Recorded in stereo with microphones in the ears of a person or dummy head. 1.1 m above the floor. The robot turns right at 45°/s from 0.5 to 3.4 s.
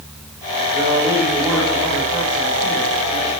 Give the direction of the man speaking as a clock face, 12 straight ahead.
7 o'clock.